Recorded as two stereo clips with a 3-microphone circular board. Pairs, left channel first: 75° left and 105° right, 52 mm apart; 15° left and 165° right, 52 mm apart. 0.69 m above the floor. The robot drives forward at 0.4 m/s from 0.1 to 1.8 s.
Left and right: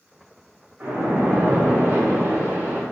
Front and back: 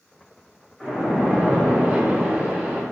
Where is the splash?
65° right, 0.8 m; by 2.8 s 105° right, 0.8 m.